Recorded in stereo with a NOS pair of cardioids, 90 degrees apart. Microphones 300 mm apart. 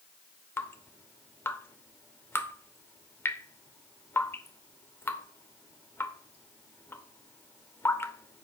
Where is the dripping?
5° left, 1.0 m.